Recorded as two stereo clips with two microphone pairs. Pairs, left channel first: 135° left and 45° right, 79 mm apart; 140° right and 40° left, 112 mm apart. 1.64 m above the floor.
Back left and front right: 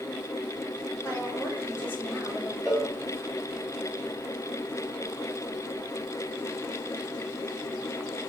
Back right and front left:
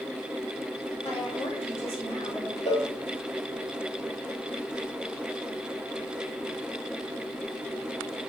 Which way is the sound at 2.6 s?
140° right.